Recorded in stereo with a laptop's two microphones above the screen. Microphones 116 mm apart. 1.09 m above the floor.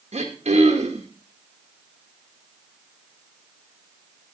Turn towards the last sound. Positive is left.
turn(degrees=-70)  # may be behind; listen again after turning